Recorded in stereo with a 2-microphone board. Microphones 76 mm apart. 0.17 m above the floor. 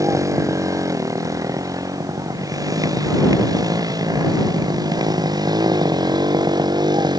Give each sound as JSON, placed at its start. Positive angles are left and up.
{"t": 0.0, "sound": "a motorcycle", "side_deg": -45}